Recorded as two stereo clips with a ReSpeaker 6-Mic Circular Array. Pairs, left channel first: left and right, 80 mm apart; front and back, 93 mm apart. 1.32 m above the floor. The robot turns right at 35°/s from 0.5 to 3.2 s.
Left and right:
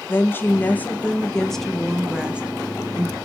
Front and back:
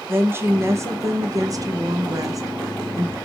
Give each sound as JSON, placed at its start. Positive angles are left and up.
{"t": 0.1, "sound": "a woman speaking", "azimuth_deg": 135, "distance_m": 0.6}